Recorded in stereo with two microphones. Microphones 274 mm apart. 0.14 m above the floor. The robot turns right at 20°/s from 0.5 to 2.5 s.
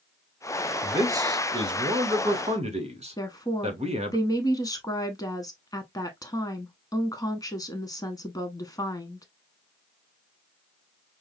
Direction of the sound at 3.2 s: 15° left (ahead or behind).